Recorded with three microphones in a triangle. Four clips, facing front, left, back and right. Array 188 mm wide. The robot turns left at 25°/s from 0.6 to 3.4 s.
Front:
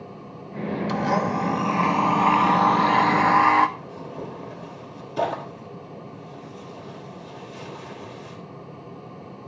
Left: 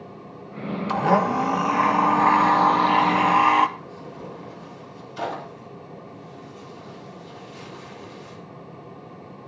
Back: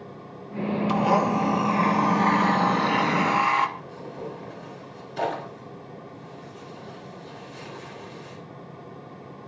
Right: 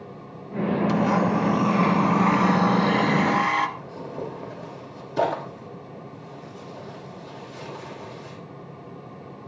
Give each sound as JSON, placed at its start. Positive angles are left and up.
{"t": 0.9, "sound": "a blender", "azimuth_deg": 110, "distance_m": 1.1}
{"t": 3.8, "sound": "tearing paper", "azimuth_deg": -70, "distance_m": 4.5}